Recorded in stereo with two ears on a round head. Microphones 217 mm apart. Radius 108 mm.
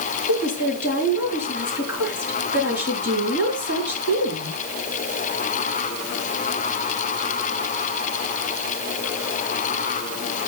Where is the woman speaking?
45° left (ahead or behind), 5 m.